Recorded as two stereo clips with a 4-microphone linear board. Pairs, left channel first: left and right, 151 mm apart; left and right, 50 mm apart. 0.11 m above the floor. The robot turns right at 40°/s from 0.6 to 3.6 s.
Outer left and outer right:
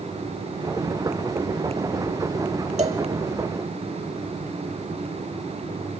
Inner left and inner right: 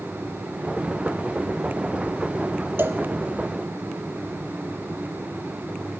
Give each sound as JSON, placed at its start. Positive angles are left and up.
{"t": 2.8, "sound": "a cowbell", "side_deg": -50, "distance_m": 3.5}